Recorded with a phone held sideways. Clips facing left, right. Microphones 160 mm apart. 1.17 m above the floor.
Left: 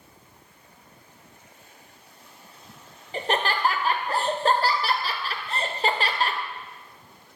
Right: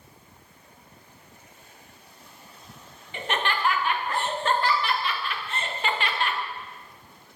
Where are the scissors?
I don't hear scissors.